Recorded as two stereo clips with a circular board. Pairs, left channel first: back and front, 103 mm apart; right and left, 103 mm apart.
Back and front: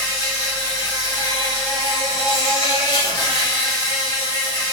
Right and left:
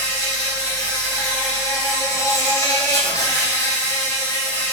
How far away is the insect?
About 1.5 m.